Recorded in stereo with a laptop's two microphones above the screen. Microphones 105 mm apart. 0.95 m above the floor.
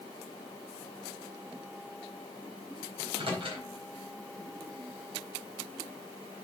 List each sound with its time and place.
3.0 s a microwave: 60° right (ahead or behind), 4 m